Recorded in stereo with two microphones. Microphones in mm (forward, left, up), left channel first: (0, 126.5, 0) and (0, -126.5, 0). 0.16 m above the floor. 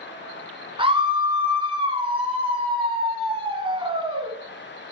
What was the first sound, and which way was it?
A scream, 20° right (ahead or behind).